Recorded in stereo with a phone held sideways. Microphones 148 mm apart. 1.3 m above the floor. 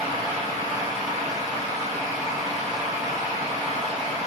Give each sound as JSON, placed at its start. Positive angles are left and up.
{"t": 0.0, "sound": "a fan", "side_deg": -25, "distance_m": 1.3}